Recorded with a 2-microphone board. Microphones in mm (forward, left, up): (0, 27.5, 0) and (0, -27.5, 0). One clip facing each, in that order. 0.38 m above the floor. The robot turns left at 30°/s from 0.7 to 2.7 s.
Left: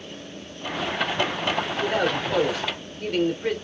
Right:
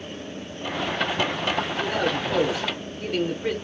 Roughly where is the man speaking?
Centre.